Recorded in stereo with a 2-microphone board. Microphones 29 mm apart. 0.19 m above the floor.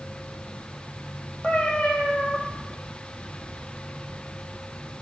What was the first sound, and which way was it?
A cat meowing, 50° left (ahead or behind).